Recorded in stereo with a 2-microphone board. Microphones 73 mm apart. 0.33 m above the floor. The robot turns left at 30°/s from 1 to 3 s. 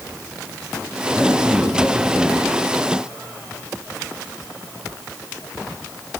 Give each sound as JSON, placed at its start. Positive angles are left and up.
{"t": 1.1, "sound": "a man speaking", "azimuth_deg": -145, "distance_m": 2.5}